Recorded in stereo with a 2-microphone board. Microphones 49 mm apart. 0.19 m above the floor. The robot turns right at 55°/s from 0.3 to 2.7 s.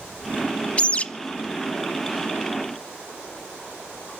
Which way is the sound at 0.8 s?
25° left (ahead or behind).